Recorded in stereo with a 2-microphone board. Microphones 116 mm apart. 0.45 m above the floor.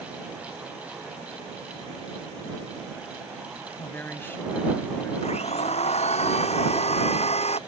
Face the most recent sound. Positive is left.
turn(degrees=65)  # may be behind; listen again after turning